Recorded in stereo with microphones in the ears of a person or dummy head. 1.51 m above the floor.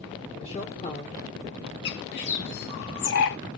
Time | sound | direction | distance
0.4 | a woman speaking | 25° left (ahead or behind) | 1.4 m
1.9 | a bird | 55° left (ahead or behind) | 0.7 m